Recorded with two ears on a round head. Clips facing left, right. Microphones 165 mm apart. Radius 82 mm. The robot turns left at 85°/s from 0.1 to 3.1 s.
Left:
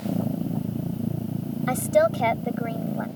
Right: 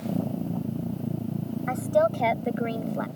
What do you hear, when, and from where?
1.7 s a woman speaking: 45° left; by 3.1 s 70° right